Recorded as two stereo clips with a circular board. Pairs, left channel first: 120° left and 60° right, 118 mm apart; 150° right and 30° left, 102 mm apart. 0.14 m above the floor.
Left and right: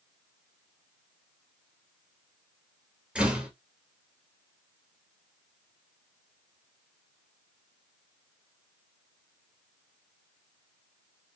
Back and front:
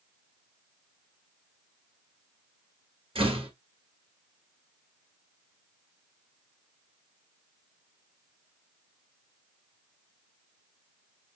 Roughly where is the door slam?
Ahead.